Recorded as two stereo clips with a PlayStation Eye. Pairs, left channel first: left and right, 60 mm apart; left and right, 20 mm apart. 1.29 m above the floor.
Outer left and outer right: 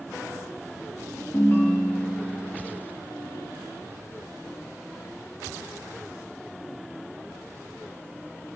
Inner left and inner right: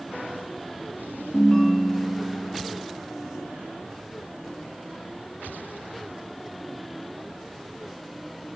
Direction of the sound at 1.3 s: 30° left (ahead or behind).